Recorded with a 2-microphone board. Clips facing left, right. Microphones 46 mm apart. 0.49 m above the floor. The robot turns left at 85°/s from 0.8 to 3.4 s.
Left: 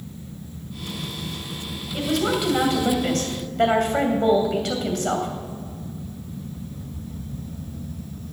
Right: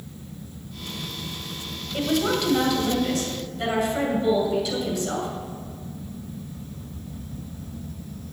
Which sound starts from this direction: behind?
A woman speaking, at 1.9 s.